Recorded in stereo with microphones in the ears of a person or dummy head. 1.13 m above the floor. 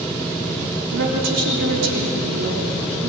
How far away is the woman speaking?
About 3.5 m.